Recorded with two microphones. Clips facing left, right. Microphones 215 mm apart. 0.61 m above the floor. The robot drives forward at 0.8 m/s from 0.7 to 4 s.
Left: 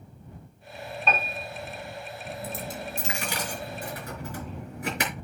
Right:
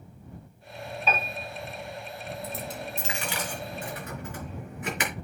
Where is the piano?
5° right (ahead or behind), 2.5 m.